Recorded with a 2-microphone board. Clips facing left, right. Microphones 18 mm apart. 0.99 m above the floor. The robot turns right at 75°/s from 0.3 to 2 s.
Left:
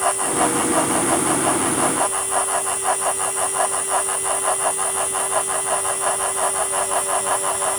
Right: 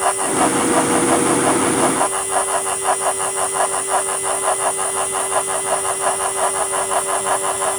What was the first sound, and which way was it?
Only background noise.